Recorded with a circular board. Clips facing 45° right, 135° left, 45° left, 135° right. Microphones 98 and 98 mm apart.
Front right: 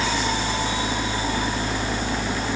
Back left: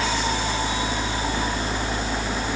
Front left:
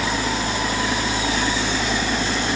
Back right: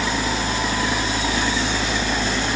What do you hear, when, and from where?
Only background noise.